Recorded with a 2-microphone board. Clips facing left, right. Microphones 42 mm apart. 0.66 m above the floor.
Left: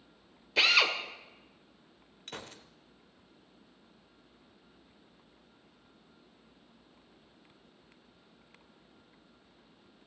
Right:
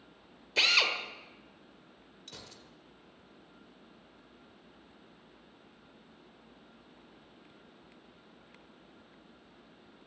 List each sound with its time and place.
0.6 s a drill: 5° left (ahead or behind), 1.6 m
2.3 s a gunshot: 45° left (ahead or behind), 1.0 m